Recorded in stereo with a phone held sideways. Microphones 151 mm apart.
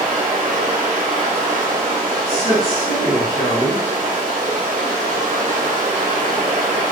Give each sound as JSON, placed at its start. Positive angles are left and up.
{"t": 0.0, "sound": "running water", "side_deg": -55, "distance_m": 0.8}
{"t": 2.3, "sound": "a man speaking", "side_deg": -20, "distance_m": 1.5}